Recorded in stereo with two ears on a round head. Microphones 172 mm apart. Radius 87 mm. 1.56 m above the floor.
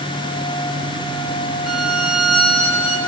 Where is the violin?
Centre (ahead or behind), 5 m.